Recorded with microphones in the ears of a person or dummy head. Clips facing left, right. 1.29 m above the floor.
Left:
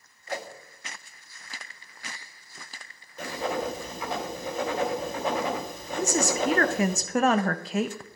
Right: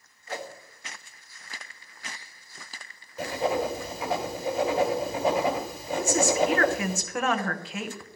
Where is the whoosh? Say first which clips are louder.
Left 1 dB; 15° left (ahead or behind), 1.8 m.